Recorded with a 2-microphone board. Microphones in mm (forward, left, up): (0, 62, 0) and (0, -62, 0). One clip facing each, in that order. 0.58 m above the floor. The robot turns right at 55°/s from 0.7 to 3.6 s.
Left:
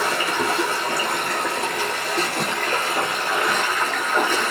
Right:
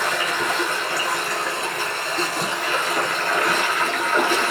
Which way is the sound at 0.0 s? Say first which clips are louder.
Left 1 dB; 30° left.